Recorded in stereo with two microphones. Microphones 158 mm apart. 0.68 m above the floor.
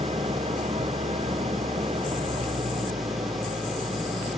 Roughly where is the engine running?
Right.